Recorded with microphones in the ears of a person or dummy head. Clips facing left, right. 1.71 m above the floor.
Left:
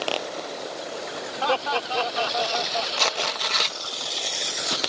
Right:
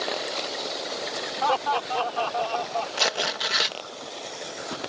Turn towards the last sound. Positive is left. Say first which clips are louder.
# even
turn(degrees=-5)  # may be behind; listen again after turning